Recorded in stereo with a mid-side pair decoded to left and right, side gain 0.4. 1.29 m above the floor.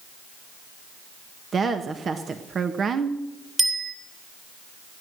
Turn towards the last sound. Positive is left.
turn(degrees=-20)